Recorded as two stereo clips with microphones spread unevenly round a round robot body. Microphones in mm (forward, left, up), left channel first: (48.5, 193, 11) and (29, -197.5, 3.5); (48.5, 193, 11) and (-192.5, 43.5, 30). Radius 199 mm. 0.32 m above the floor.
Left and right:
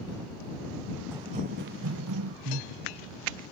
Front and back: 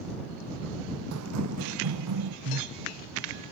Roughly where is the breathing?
Behind right.